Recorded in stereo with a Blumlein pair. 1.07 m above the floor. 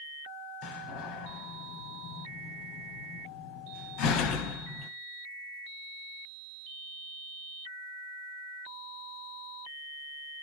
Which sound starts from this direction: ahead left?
A door slam, at 0.6 s.